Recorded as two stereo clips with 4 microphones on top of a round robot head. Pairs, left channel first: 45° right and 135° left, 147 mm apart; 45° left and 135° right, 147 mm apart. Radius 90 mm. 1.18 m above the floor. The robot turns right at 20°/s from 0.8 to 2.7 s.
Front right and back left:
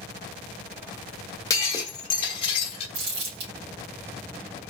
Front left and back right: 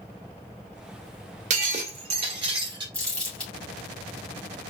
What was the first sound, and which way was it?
Breaking glass, 105° right.